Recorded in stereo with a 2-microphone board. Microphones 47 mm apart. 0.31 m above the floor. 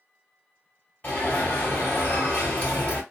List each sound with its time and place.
1.0 s an alarm: 35° left (ahead or behind), 3 m